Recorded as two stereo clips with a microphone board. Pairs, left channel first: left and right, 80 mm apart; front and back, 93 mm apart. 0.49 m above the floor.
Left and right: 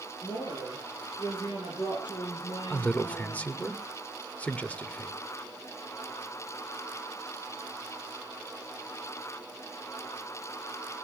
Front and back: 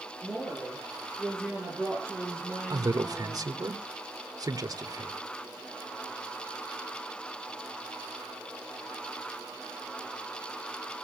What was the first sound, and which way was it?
A woman speaking, 95° left.